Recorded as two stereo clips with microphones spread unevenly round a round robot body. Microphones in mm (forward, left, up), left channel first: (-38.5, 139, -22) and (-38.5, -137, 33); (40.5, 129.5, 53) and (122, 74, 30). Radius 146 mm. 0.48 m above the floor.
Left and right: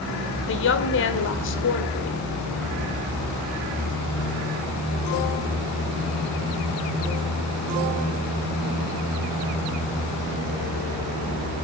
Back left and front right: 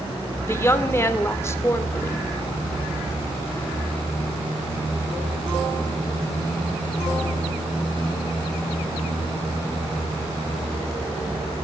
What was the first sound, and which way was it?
A woman speaking, 75° left.